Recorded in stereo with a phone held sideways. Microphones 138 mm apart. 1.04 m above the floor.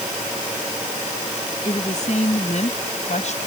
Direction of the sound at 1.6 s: 55° left (ahead or behind).